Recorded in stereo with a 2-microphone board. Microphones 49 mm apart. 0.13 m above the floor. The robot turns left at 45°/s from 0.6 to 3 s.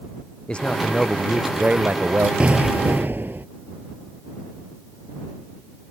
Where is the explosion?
25° right (ahead or behind); by 3.5 s 45° right (ahead or behind).